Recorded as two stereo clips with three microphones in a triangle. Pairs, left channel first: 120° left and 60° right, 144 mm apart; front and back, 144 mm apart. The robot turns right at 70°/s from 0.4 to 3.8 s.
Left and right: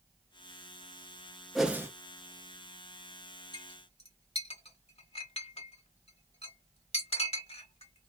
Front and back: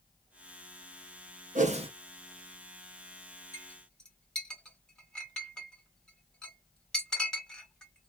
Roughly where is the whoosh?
Behind right.